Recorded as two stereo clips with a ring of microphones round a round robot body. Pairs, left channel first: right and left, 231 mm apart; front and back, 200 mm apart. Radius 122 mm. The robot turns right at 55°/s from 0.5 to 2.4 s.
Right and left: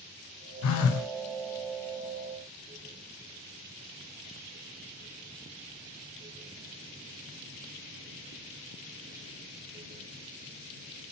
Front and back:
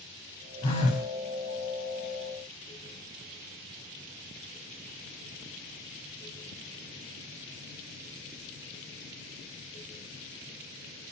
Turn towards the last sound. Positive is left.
turn(degrees=25)